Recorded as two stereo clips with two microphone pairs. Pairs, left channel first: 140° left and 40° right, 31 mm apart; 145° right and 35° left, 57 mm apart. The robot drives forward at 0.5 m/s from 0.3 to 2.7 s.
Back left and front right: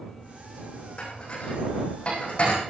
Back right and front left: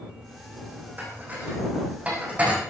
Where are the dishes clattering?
90° left, 8.5 m; by 2.7 s 100° left, 8.5 m.